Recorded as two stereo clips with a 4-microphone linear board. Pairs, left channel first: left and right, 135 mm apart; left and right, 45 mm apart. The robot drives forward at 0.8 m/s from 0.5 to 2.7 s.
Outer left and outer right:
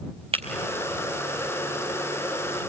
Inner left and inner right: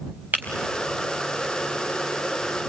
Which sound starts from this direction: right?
Breaking glass, at 0.3 s.